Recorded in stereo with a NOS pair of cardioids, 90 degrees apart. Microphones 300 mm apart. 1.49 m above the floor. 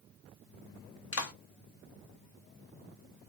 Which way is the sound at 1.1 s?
50° left.